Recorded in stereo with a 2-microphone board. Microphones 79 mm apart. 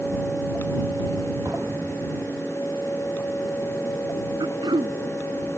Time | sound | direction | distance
1.4 | an explosion | 45° right (ahead or behind) | ?
4.4 | throat clearing | 75° right (ahead or behind) | ?